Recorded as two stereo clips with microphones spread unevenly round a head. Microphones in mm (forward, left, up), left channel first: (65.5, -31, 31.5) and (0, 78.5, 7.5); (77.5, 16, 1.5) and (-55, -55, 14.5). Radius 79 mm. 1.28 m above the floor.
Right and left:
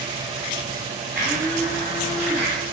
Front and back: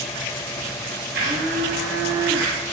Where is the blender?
150° right, 5.5 m.